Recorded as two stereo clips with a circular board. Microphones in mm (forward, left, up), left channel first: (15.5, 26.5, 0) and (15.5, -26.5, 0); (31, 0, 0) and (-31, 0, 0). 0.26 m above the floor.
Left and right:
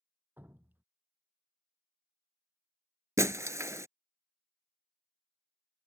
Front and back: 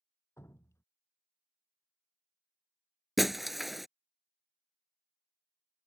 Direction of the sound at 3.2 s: 90° right.